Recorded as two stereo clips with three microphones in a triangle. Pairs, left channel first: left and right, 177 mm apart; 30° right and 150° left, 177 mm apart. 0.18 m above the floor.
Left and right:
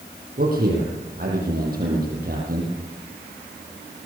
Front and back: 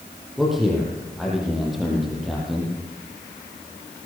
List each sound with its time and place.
0.4 s a man speaking: 120° right, 6.5 m